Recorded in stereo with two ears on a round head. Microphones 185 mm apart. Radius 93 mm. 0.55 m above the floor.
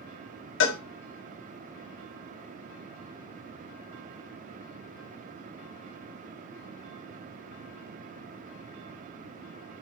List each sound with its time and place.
0.6 s a cowbell: 60° left (ahead or behind), 0.7 m